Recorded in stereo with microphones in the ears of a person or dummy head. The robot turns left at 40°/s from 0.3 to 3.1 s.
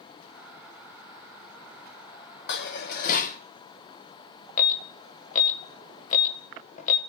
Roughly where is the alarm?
Left.